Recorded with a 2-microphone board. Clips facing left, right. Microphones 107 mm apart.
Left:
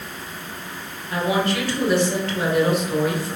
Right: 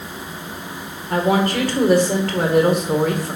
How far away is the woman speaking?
About 1.8 m.